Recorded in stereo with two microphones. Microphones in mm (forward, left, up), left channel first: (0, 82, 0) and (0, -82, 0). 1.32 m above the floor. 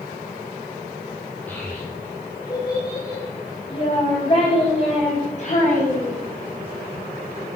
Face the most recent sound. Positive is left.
turn(degrees=55)  # may be behind; listen again after turning